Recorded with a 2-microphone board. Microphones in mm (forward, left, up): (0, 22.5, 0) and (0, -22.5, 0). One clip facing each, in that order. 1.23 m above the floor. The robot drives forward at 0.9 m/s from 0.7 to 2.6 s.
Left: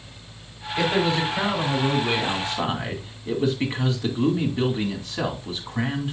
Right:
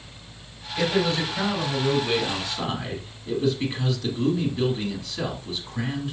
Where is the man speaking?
20° left (ahead or behind), 3.5 m; by 6.1 s 35° left (ahead or behind), 2.5 m.